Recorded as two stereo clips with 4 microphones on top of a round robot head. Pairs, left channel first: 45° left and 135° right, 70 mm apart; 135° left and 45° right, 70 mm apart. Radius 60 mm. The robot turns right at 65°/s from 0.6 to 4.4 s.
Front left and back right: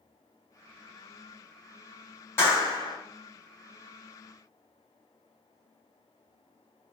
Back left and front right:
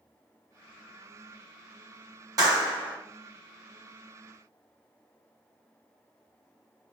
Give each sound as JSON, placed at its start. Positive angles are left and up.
{"t": 2.4, "sound": "a clap", "azimuth_deg": -10, "distance_m": 4.0}